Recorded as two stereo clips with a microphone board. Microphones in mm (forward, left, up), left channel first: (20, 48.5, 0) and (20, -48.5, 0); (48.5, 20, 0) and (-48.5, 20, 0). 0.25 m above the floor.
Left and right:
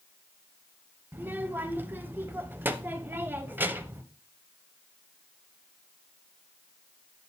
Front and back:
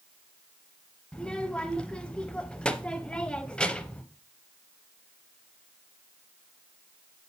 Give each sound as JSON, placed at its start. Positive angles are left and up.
{"t": 1.1, "sound": "a child speaking", "azimuth_deg": -60, "distance_m": 0.5}